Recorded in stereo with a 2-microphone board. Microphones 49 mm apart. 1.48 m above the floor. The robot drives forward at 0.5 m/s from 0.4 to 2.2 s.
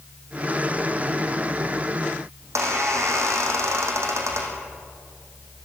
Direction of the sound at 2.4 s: 75° right (ahead or behind).